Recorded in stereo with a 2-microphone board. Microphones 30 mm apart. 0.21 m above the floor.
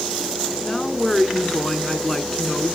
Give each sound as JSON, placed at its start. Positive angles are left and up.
{"t": 0.6, "sound": "a woman speaking", "side_deg": 15, "distance_m": 2.0}